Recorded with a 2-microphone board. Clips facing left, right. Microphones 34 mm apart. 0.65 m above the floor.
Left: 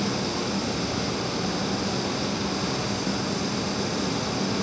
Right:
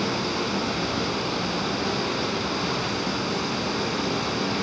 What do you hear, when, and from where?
0.0 s running water: 20° right (ahead or behind), 3.5 m